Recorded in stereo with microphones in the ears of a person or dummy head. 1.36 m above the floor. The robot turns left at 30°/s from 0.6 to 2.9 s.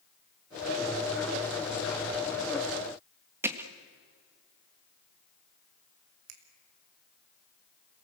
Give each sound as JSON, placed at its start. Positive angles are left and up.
{"t": 3.4, "sound": "hammering", "side_deg": -10, "distance_m": 1.6}
{"t": 6.3, "sound": "a finger snap", "side_deg": -85, "distance_m": 3.0}